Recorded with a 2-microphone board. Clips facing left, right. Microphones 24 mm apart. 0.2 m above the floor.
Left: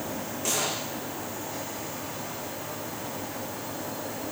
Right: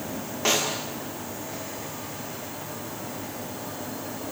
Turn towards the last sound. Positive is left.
turn(degrees=-40)  # may be behind; listen again after turning